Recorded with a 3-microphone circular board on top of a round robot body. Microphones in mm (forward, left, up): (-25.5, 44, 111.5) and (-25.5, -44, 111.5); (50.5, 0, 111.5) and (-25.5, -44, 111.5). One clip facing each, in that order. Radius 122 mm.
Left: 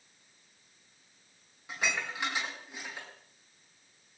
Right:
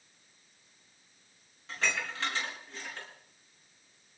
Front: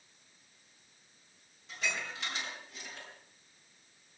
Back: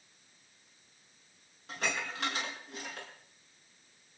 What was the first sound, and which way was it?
Dishes clattering, 165° left.